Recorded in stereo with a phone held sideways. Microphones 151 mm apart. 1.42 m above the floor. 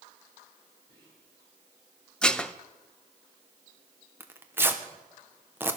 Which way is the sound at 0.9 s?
40° right (ahead or behind).